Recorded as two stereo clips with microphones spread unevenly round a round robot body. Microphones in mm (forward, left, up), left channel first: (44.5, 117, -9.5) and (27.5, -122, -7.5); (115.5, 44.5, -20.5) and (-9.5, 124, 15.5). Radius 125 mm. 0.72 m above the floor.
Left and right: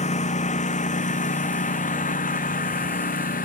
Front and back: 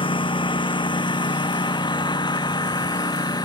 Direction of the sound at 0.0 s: 25° left.